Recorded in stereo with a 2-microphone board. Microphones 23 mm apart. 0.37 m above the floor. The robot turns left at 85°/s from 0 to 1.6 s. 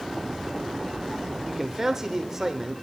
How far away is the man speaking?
About 0.9 m.